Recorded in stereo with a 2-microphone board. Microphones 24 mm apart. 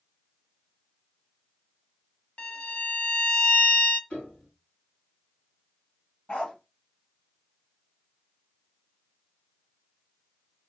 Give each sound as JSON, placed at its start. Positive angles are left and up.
{"t": 2.4, "sound": "a violin", "side_deg": 50, "distance_m": 0.6}
{"t": 4.1, "sound": "a piano", "side_deg": 70, "distance_m": 3.5}
{"t": 6.3, "sound": "a dog barking", "side_deg": 50, "distance_m": 1.3}